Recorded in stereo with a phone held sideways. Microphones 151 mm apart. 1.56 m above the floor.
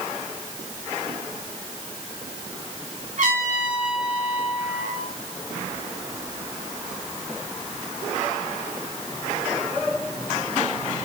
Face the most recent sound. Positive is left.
turn(degrees=-70)  # may be behind; listen again after turning